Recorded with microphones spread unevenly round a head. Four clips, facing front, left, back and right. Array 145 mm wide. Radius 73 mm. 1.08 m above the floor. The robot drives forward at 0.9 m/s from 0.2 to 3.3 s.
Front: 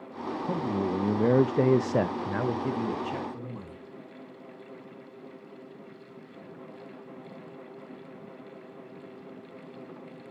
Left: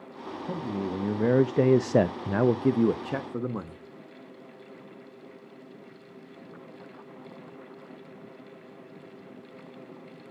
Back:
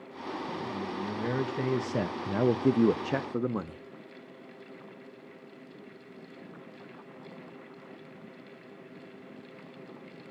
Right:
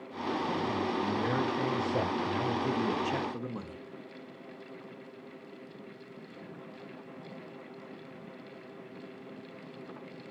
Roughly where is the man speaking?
Ahead.